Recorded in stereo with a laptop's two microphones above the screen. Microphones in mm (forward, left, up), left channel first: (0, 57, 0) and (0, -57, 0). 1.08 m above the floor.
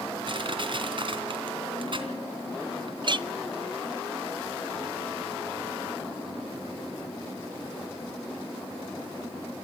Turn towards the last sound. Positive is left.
turn(degrees=-45)  # may be behind; listen again after turning